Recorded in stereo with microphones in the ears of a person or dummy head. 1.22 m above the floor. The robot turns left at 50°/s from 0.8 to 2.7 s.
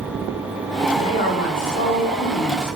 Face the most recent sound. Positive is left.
turn(degrees=65)